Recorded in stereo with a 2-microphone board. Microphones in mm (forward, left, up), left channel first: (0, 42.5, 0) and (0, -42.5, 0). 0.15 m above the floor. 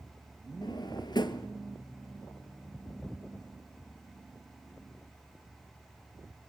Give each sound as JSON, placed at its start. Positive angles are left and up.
{"t": 0.6, "sound": "a drawer", "side_deg": 60, "distance_m": 1.2}